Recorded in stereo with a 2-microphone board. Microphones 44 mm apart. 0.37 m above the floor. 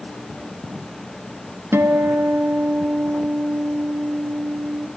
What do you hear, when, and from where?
1.7 s a guitar: 70° right (ahead or behind), 0.6 m